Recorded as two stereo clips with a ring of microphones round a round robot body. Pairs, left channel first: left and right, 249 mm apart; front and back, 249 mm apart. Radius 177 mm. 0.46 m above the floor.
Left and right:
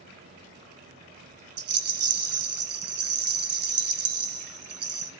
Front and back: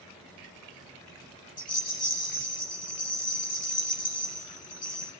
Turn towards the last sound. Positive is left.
turn(degrees=-65)